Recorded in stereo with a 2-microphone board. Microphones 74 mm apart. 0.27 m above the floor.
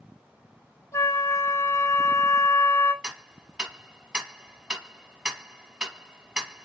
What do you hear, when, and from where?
0.9 s a flute: 40° left (ahead or behind), 1.1 m
3.0 s ticking: 10° right (ahead or behind), 1.3 m